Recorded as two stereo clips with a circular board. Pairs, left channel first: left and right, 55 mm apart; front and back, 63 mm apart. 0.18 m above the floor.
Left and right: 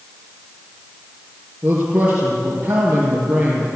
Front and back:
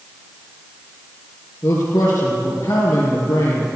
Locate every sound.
1.6 s a man speaking: 20° right, 4 m